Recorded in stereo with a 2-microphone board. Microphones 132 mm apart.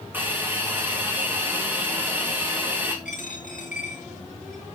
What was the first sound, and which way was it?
A hiss, 15° right (ahead or behind).